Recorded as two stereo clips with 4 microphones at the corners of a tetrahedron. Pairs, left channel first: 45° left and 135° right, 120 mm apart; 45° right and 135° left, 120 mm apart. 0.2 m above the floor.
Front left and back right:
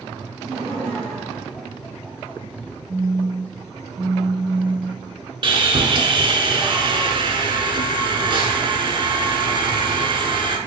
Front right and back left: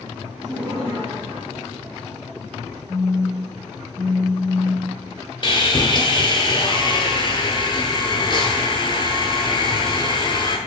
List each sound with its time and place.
0.4 s laughter: 145° left, 1.1 m; by 2.4 s 115° left, 1.9 m
2.9 s a phone buzzing: 160° right, 1.1 m
5.4 s sawing: 90° right, 0.5 m